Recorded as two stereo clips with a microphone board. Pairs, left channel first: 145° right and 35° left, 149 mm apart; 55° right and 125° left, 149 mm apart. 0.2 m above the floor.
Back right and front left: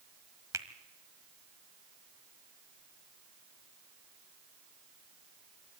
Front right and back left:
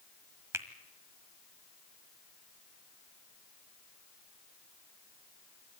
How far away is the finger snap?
About 1.3 m.